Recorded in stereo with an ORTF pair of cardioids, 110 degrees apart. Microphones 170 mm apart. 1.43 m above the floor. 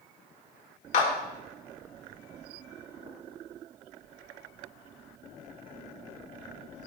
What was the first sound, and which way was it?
A clap, 50° left.